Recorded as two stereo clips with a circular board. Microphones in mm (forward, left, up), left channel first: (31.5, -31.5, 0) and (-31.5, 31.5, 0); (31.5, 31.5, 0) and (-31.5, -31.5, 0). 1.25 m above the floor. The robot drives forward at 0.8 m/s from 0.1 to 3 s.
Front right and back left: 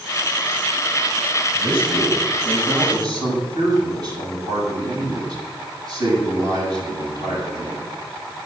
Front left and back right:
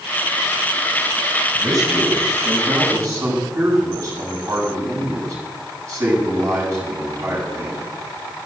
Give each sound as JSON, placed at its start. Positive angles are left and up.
{"t": 1.5, "sound": "a man speaking", "azimuth_deg": 170, "distance_m": 7.0}